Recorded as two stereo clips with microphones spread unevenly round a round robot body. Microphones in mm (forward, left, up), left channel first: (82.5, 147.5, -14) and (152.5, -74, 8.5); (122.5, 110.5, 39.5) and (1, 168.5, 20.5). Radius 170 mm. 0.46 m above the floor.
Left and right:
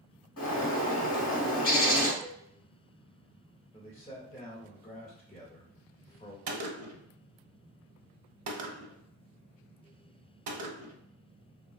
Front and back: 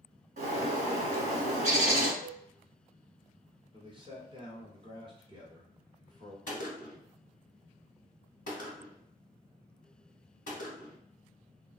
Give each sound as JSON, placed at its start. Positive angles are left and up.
{"t": 0.4, "sound": "a bird", "azimuth_deg": 160, "distance_m": 0.6}
{"t": 2.2, "sound": "a cowbell", "azimuth_deg": -155, "distance_m": 1.4}
{"t": 3.7, "sound": "a man speaking", "azimuth_deg": 155, "distance_m": 1.6}
{"t": 6.5, "sound": "a gunshot", "azimuth_deg": -75, "distance_m": 0.6}